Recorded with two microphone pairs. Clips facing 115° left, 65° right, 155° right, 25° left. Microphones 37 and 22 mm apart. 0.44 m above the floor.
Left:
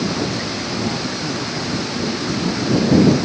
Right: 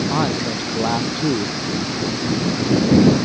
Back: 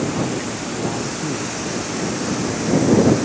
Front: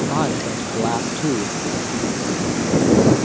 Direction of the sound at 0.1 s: 25° right.